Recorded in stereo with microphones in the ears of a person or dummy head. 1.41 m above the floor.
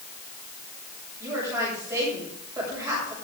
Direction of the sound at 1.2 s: 15° right (ahead or behind).